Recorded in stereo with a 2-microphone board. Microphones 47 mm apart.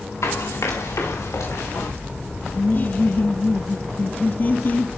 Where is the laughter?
40° left (ahead or behind), 0.9 m.